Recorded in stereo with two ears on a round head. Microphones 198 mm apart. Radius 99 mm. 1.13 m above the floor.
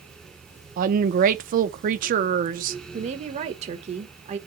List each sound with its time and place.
0.8 s a woman speaking: 40° right (ahead or behind), 0.8 m
2.9 s a woman speaking: 30° right (ahead or behind), 1.4 m